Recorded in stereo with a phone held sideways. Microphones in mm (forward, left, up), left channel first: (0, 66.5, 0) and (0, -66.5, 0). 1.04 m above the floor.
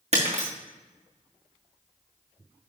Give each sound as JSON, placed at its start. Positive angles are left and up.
{"t": 0.1, "sound": "breaking glass", "side_deg": -55, "distance_m": 3.0}